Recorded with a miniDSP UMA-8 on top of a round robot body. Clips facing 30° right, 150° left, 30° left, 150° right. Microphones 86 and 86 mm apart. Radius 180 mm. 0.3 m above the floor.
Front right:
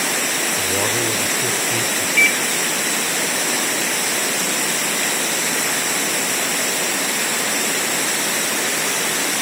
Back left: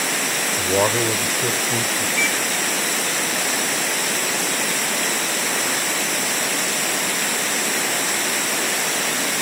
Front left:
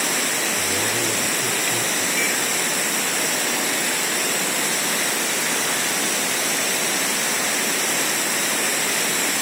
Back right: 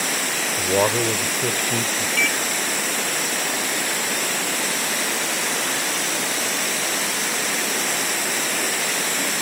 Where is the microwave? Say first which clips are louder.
Front right 6 dB, back right 4 dB; 150° right.